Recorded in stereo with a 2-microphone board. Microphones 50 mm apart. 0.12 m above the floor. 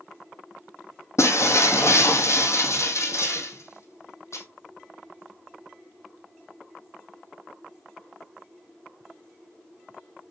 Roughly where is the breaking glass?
Left.